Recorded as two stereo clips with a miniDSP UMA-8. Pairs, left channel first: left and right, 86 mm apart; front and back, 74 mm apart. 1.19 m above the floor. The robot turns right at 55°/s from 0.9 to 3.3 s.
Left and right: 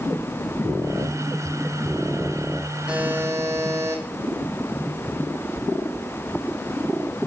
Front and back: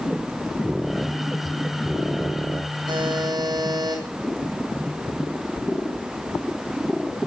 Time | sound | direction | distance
2.9 | a buzzer | 170° right | 9 m